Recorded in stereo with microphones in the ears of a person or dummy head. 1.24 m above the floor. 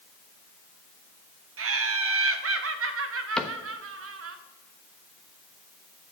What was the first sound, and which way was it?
Laughter, 65° right (ahead or behind).